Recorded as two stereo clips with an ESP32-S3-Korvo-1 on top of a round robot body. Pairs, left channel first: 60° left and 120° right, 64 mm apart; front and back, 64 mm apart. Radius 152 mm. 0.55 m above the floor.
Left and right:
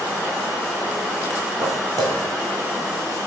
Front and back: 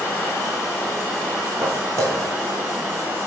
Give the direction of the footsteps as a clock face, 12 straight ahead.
5 o'clock.